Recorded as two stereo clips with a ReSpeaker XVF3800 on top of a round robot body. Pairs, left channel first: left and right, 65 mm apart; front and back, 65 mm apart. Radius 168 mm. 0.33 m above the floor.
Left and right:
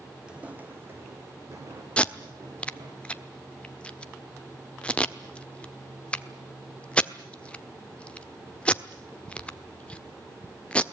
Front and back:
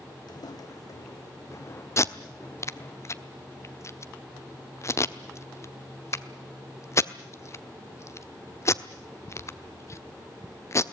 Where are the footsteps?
15° right, 1.8 m; by 3.0 s 60° right, 4.5 m.